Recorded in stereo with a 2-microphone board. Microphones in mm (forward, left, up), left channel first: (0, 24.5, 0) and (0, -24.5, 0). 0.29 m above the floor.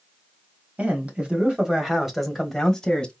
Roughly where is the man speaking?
Right.